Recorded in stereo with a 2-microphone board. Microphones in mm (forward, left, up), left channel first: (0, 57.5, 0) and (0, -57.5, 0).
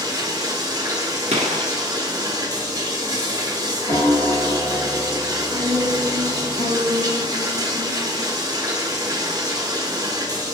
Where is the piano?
50° left (ahead or behind), 2 m.